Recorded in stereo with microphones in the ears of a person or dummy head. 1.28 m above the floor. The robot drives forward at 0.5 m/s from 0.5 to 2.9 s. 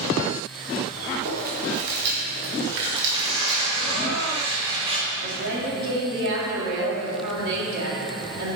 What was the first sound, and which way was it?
Chewing, 50° right (ahead or behind).